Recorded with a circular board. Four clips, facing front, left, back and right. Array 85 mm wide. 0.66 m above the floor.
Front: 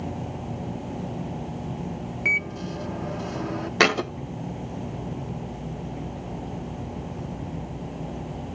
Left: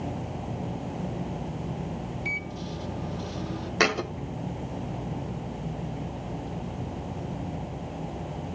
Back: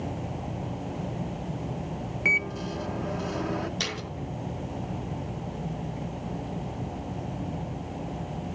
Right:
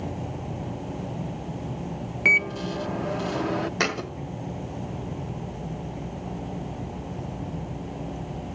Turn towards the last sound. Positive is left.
turn(degrees=10)